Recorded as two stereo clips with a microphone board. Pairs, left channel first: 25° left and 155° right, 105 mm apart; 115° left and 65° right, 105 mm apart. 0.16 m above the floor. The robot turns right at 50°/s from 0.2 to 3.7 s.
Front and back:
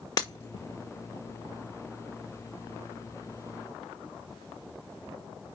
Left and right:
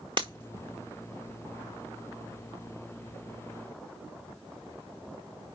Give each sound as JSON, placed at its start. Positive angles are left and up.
{"t": 0.2, "sound": "breaking glass", "azimuth_deg": -30, "distance_m": 1.8}